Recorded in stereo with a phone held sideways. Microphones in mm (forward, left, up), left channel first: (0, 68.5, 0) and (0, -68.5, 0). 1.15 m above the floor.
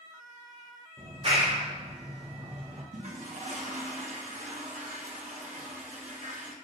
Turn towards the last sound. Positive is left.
turn(degrees=-60)  # may be behind; listen again after turning